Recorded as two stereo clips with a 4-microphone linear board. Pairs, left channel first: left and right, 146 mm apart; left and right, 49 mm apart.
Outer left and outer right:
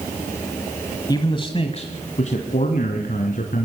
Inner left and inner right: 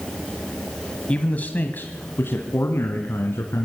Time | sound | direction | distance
1.1 | a man speaking | 25° left (ahead or behind) | 1.4 m